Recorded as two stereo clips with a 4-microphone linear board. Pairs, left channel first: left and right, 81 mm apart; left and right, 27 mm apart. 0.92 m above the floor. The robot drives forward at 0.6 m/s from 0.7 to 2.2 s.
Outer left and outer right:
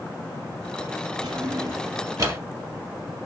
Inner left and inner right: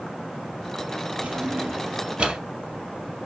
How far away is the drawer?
About 1.2 m.